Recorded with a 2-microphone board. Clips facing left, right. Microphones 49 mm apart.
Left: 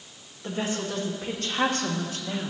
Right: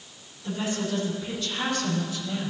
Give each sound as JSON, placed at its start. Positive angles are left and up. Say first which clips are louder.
{"t": 0.4, "sound": "a woman speaking", "louder": "even", "side_deg": 50, "distance_m": 2.5}